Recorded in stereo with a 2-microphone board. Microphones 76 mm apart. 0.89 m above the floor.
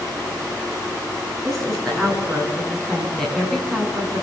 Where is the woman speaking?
5° left (ahead or behind), 10 m.